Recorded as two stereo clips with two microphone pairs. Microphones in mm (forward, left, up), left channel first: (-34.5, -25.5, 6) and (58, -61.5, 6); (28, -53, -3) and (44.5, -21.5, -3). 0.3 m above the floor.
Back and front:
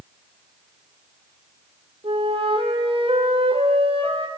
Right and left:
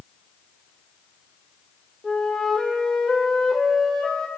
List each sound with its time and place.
2.0 s a flute: 40° right, 3.5 m